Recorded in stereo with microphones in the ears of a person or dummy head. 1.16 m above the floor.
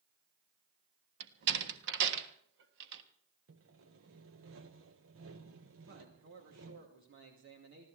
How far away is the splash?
I don't hear a splash.